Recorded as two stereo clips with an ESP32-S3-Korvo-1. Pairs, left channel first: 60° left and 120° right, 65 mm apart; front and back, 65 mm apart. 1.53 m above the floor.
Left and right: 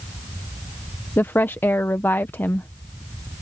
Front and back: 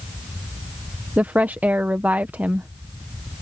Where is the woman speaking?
115° left.